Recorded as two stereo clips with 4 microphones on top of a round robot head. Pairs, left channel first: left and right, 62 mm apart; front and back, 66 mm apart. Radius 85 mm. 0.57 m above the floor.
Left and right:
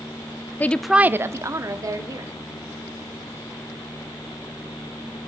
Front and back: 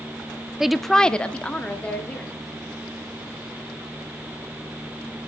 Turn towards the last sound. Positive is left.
turn(degrees=-70)